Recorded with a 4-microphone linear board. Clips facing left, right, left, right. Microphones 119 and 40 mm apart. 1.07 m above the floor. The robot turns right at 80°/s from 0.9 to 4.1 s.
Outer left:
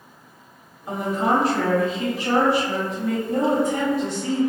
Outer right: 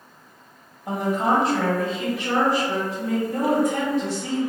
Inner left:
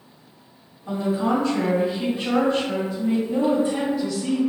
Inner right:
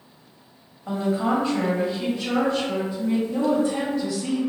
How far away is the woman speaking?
About 1.3 m.